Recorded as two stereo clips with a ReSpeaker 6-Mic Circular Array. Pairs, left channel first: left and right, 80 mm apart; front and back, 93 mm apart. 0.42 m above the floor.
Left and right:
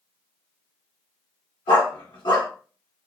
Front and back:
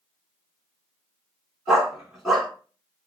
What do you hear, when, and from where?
1.7 s a dog barking: 95° left, 1.5 m